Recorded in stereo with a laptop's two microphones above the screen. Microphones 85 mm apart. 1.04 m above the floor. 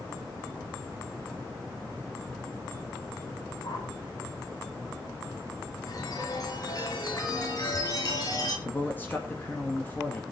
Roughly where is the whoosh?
Left.